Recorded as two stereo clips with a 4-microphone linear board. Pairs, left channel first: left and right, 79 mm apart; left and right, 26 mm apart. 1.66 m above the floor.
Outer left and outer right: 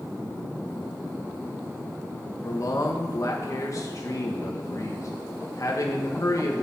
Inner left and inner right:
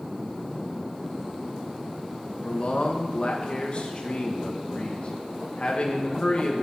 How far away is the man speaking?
About 1.4 m.